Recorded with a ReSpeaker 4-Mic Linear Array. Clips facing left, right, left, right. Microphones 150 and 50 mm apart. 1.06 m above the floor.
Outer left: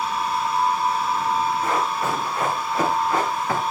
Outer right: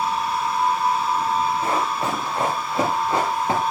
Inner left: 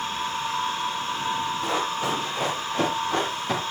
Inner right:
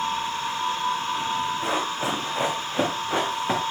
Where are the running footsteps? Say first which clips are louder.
Even, even; 30° right (ahead or behind), 8 m; by 3.6 s 25° right (ahead or behind), 6.5 m.